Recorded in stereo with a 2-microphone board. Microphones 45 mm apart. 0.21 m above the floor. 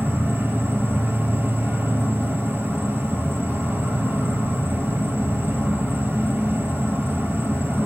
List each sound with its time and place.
0.0 s an insect: 55° right (ahead or behind), 0.9 m